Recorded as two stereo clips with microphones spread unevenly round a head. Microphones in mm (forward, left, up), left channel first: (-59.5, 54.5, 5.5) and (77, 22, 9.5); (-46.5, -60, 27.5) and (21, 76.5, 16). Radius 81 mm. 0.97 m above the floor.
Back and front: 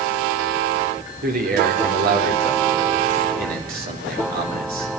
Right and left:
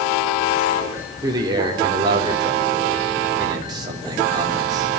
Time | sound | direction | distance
1.2 | a man speaking | straight ahead | 3.5 m